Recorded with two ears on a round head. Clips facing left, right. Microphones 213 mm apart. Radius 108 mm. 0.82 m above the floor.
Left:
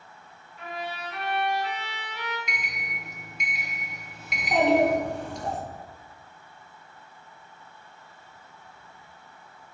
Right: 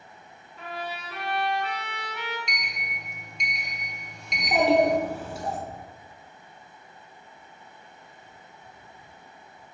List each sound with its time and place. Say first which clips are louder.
0.6 s a trumpet: even; 65° right (ahead or behind), 3.5 m
2.5 s a sliding door: left 1 dB; 5° left (ahead or behind), 1.2 m
4.3 s a child speaking: even; 5° right (ahead or behind), 2 m